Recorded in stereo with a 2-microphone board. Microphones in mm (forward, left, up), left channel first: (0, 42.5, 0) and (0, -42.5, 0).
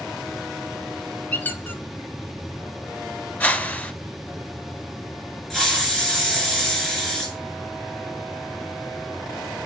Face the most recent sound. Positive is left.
turn(degrees=5)  # may be behind; listen again after turning